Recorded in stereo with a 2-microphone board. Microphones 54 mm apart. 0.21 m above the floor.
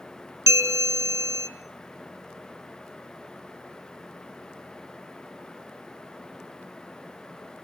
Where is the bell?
70° right (ahead or behind), 0.8 m.